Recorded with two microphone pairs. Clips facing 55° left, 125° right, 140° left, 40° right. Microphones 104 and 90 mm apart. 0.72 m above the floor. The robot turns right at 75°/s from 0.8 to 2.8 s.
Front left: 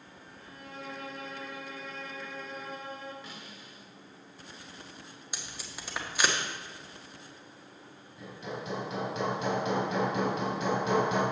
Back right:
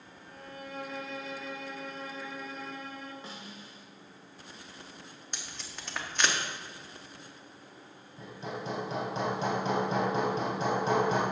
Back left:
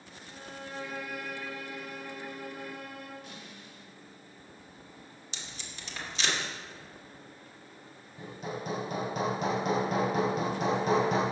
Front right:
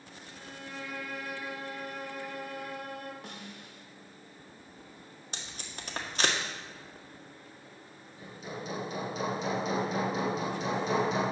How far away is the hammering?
About 3.5 m.